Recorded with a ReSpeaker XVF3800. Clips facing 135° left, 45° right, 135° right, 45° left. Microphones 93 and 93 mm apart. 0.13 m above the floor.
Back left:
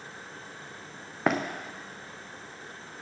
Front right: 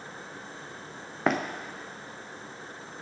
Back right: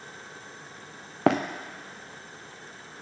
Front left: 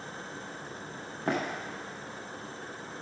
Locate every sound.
1.3 s running footsteps: 135° right, 1.4 m